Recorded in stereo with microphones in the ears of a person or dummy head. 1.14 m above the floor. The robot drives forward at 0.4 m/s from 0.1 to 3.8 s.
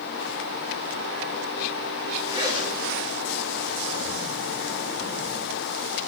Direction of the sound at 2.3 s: 25° right (ahead or behind).